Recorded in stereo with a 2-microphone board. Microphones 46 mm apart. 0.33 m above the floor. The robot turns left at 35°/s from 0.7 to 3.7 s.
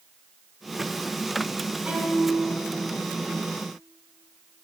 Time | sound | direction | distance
1.9 | a violin | 30° right (ahead or behind) | 2.5 m